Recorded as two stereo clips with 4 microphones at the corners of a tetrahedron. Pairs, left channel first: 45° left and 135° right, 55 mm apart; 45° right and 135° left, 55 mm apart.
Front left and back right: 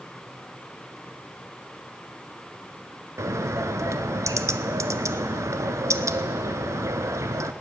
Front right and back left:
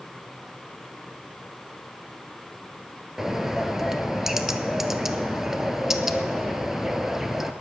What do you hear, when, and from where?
3.2 s a bird: 140° right, 0.7 m